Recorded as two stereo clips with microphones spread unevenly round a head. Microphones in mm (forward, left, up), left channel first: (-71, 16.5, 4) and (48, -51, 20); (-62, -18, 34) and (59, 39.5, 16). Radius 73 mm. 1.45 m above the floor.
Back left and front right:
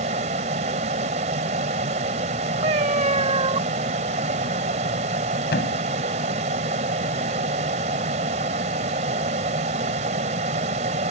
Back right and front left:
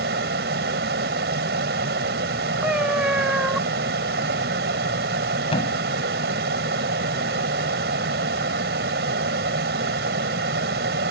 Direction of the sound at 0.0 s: 15° left.